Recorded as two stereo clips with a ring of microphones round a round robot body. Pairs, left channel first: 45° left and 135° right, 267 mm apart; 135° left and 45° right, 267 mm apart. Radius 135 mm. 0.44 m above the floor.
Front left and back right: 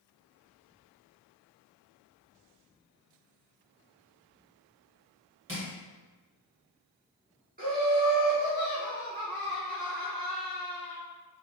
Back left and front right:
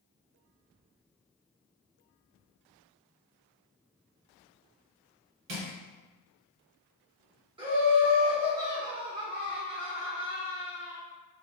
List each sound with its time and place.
5.5 s crushing: 55° right, 1.8 m
7.6 s laughter: 105° right, 1.4 m